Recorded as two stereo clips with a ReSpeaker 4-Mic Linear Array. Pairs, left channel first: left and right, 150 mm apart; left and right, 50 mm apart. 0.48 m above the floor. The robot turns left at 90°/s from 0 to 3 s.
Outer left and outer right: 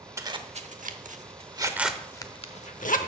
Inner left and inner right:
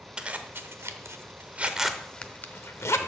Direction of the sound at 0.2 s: 20° right (ahead or behind).